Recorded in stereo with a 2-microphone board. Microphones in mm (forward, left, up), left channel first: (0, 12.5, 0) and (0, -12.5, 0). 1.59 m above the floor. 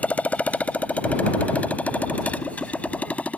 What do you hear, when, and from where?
0.0 s a motorcycle: 75° left (ahead or behind); by 3.4 s 65° left (ahead or behind)